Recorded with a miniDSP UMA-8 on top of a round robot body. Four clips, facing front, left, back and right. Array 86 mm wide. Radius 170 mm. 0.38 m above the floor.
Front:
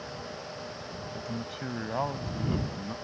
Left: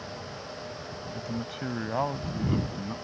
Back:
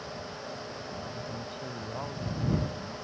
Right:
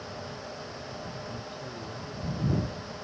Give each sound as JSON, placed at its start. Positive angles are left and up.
{"t": 1.1, "sound": "a man speaking", "azimuth_deg": 70}